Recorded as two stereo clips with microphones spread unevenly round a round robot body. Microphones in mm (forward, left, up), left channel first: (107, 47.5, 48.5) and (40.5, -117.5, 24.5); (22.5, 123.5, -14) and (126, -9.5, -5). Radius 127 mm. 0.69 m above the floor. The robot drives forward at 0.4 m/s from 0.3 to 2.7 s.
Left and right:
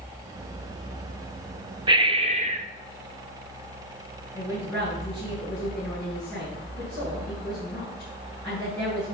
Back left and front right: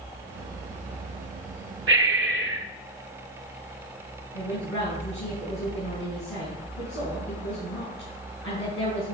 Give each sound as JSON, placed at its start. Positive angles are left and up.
{"t": 1.9, "sound": "breathing", "azimuth_deg": -45, "distance_m": 0.9}
{"t": 4.3, "sound": "a woman speaking", "azimuth_deg": 155, "distance_m": 5.0}